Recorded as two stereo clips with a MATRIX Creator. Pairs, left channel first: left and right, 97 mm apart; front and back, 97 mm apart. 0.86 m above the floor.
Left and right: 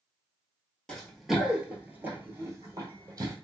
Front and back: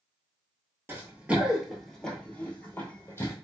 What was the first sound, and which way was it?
Running footsteps, 165° left.